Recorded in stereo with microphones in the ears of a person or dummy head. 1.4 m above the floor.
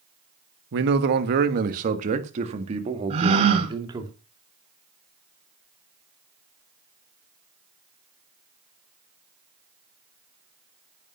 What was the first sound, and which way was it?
A man speaking, 60° right (ahead or behind).